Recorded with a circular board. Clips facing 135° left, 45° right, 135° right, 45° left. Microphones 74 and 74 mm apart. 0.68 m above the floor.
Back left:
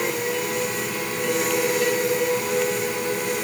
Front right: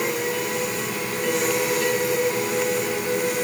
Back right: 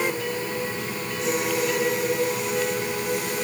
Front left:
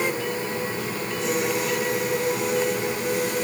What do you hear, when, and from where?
Only background noise.